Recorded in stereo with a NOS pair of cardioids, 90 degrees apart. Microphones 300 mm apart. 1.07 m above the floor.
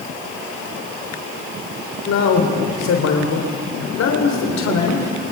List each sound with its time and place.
2.1 s a man speaking: 60° left, 3.5 m